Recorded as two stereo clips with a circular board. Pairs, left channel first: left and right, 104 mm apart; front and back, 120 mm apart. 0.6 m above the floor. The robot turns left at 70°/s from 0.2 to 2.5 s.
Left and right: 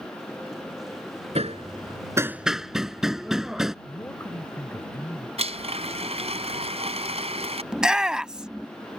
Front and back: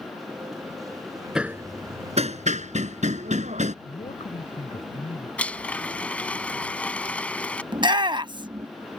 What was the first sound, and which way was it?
Hammering, 95° right.